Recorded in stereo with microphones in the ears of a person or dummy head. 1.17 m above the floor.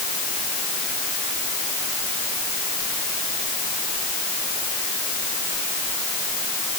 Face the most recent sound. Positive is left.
No sound to turn to.